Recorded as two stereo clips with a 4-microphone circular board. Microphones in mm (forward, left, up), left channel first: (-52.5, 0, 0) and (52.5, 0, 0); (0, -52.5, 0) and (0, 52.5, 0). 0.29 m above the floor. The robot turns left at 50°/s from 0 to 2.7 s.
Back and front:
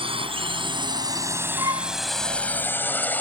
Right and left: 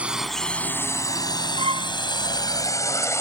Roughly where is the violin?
Ahead left.